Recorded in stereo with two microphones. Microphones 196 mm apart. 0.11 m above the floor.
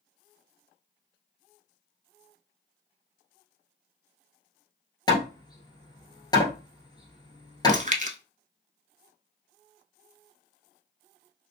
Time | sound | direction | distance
5.1 | hammering | 20° left (ahead or behind) | 1.3 m
7.7 | chewing | 40° right (ahead or behind) | 0.6 m